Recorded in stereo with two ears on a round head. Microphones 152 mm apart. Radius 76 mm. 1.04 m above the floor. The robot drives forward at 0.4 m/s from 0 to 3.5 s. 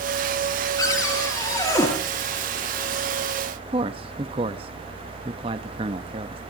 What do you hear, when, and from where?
0.8 s a cupboard door: 25° left (ahead or behind), 8 m; by 1.9 s 20° left (ahead or behind), 8 m
3.7 s a man speaking: 30° right (ahead or behind), 1.2 m